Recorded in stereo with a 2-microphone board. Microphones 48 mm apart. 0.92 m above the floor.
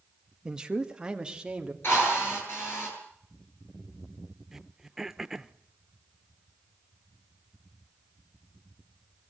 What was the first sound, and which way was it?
A man speaking, 15° right (ahead or behind).